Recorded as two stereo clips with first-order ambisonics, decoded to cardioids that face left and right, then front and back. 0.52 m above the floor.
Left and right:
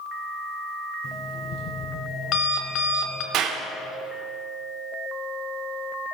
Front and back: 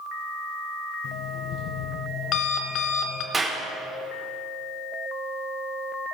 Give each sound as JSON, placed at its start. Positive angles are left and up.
{"t": 1.0, "sound": "an alarm clock", "azimuth_deg": 45, "distance_m": 1.3}
{"t": 3.3, "sound": "a clap", "azimuth_deg": -110, "distance_m": 1.1}